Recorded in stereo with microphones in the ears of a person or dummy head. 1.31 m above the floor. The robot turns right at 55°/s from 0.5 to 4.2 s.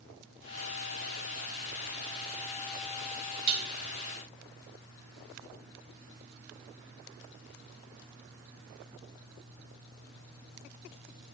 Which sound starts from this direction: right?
Dishes clattering, at 3.5 s.